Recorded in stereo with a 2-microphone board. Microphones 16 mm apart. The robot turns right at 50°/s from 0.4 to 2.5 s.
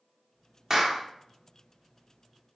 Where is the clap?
30° right (ahead or behind), 1.2 m; by 1.0 s 20° right (ahead or behind), 1.2 m.